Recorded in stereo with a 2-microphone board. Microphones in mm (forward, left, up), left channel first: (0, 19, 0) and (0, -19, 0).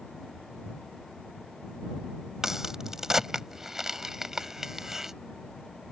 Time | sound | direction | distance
2.4 | a crack | 15° right (ahead or behind) | ?